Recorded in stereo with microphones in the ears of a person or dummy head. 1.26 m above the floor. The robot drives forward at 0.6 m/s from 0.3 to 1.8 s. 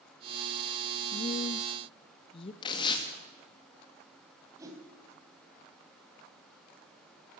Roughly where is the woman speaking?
Left.